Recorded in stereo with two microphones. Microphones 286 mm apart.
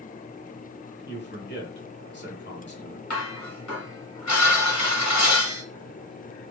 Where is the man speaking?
40° left (ahead or behind), 1.3 m.